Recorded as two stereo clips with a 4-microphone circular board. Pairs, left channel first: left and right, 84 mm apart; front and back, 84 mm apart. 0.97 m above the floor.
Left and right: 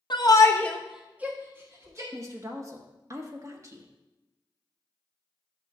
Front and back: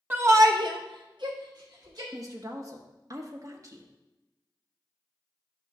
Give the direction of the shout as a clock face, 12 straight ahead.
8 o'clock.